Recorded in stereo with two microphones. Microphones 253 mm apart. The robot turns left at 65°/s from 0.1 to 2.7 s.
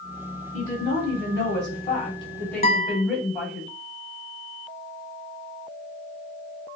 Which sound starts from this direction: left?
A guitar, at 2.6 s.